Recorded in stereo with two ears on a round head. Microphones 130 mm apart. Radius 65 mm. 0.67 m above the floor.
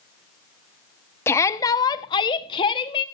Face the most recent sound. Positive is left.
turn(degrees=35)  # may be behind; listen again after turning